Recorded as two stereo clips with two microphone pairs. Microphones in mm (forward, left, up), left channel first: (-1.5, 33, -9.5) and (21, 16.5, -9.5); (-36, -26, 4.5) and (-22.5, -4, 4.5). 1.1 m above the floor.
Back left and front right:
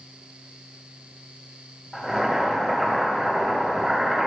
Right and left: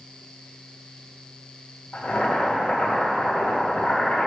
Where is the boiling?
120° right, 4.5 m.